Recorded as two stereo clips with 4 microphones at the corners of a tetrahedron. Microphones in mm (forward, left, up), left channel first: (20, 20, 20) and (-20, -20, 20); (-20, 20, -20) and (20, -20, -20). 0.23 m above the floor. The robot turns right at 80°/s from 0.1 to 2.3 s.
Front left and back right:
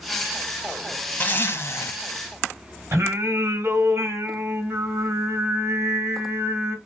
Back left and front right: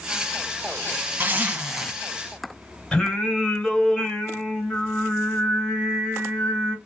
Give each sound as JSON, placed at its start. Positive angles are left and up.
{"t": 1.2, "sound": "a zipper", "azimuth_deg": -5, "distance_m": 1.3}
{"t": 2.9, "sound": "singing", "azimuth_deg": -150, "distance_m": 2.5}